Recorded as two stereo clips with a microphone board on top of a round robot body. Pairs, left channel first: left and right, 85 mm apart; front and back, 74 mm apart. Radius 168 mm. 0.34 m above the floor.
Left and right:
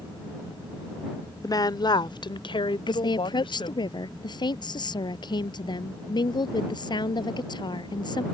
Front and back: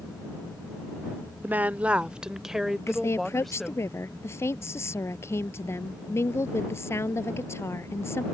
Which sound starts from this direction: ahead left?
A woman speaking, at 2.9 s.